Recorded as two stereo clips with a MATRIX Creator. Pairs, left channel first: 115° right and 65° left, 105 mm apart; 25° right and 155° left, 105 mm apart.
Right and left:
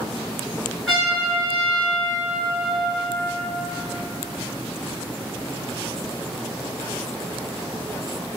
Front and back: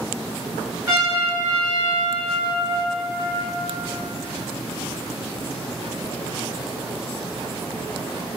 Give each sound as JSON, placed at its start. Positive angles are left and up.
{"t": 0.9, "sound": "a trumpet", "azimuth_deg": 155, "distance_m": 1.8}